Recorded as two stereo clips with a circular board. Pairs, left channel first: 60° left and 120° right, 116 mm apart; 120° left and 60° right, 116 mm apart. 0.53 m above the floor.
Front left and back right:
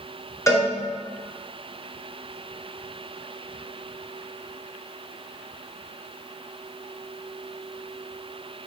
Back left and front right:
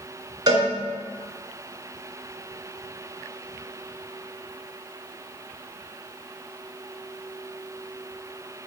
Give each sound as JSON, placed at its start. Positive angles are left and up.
{"t": 0.5, "sound": "a cowbell", "azimuth_deg": -5, "distance_m": 2.0}